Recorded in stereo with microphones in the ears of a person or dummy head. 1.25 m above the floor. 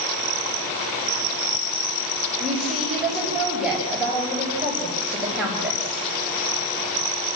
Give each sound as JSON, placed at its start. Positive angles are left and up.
{"t": 2.4, "sound": "a woman speaking", "side_deg": 0, "distance_m": 6.0}